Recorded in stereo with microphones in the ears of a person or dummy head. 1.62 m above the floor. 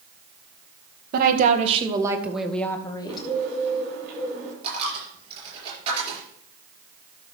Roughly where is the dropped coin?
Right.